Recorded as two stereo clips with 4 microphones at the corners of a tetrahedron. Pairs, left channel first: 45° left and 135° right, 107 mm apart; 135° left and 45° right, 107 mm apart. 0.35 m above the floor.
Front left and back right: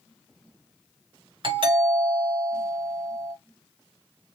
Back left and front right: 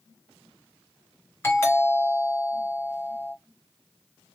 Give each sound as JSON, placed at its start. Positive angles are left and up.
{"t": 1.4, "sound": "a doorbell", "azimuth_deg": -160, "distance_m": 3.0}